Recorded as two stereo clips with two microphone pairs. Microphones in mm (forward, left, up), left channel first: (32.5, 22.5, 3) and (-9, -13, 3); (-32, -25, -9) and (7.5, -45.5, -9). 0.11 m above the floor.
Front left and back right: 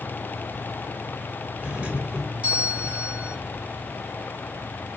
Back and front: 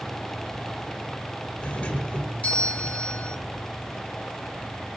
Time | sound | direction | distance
1.6 | a doorbell | 175° left | 2.5 m